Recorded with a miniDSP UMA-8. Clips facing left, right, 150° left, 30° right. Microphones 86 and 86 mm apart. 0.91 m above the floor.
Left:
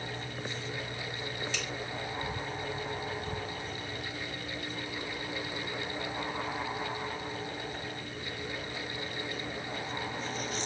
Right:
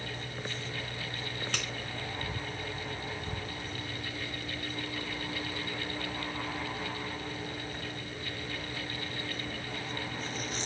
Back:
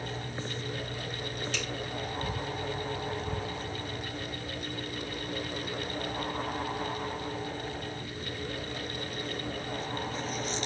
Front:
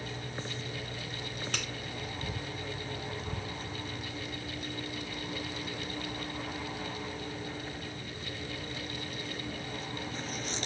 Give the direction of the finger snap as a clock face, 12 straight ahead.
2 o'clock.